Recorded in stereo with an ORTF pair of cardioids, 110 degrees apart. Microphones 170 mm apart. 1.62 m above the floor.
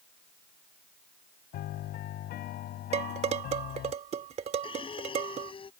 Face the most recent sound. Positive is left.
turn(degrees=35)